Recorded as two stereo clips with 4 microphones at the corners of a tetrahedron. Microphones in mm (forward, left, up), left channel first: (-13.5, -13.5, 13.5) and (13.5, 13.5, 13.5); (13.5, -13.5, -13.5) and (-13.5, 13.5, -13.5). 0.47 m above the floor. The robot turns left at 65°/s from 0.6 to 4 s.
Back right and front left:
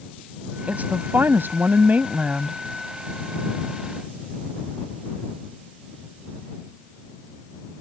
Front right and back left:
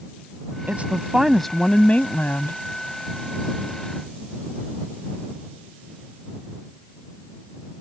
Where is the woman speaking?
90° left; by 2.6 s 35° right.